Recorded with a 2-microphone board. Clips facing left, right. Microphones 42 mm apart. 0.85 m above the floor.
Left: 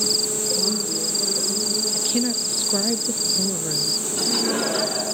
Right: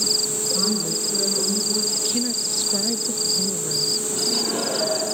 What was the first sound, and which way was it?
A woman speaking, 60° right (ahead or behind).